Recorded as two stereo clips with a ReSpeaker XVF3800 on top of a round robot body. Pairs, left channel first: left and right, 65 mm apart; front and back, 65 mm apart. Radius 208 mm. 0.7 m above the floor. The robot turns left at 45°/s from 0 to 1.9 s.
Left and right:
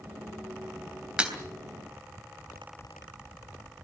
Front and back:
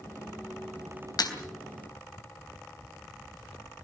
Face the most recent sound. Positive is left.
turn(degrees=-45)